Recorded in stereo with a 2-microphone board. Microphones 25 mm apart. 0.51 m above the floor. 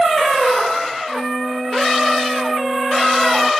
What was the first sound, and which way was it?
A flute, 65° right (ahead or behind).